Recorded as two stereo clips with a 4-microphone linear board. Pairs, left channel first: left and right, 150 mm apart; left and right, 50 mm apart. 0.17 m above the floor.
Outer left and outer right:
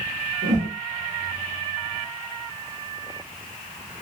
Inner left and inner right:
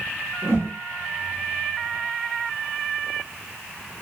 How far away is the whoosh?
About 3 m.